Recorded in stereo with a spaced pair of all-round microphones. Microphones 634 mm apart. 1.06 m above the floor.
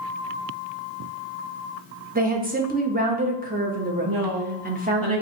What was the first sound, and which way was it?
A woman speaking, 15° right (ahead or behind).